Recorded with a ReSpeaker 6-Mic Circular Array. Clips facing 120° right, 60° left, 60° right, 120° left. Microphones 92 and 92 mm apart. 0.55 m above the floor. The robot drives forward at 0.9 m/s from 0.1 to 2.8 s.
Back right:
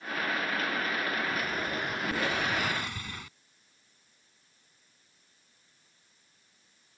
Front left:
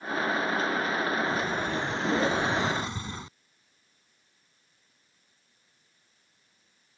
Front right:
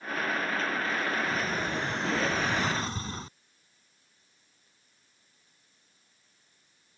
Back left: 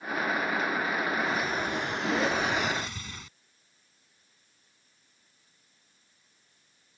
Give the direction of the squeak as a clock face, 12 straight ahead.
I don't hear a squeak.